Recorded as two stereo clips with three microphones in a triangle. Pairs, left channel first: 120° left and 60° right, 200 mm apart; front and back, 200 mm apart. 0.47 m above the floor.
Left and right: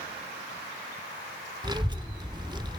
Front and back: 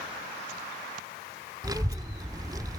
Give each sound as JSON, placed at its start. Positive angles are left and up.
{"t": 1.6, "sound": "a child speaking", "azimuth_deg": -115, "distance_m": 0.9}